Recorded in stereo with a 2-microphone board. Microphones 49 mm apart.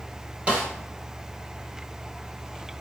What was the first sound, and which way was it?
A snare drum, 25° right (ahead or behind).